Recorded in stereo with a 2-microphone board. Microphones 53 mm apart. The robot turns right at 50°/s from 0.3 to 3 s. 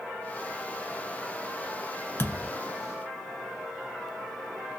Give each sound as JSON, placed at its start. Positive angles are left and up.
{"t": 2.2, "sound": "a thud", "side_deg": 45, "distance_m": 0.9}